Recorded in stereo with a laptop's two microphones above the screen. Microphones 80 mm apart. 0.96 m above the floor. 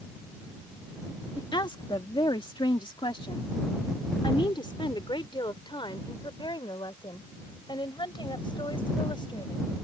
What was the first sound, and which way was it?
A woman speaking, 60° left (ahead or behind).